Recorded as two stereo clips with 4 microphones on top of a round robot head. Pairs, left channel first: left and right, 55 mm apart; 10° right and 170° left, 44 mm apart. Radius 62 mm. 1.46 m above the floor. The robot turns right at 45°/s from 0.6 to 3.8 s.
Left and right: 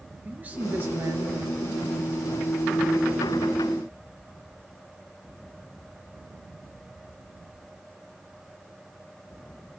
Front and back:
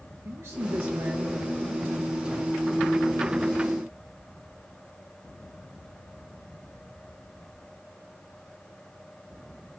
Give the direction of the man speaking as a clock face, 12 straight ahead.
5 o'clock.